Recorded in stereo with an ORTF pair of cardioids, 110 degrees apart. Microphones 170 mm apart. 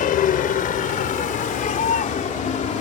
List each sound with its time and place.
0.0 s a vehicle: 55° left; by 2.8 s 50° left